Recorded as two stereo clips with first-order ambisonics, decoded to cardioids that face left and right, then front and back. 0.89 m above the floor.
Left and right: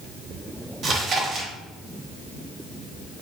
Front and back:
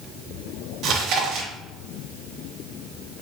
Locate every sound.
0.8 s chewing: 145° right, 0.9 m